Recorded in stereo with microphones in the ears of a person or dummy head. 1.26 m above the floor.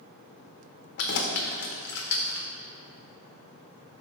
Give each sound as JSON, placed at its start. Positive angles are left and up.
{"t": 1.0, "sound": "keys jangling", "side_deg": 60, "distance_m": 0.6}